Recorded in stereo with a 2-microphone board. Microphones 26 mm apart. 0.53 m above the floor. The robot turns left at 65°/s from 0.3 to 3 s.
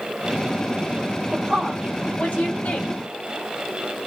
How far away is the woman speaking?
About 1.9 m.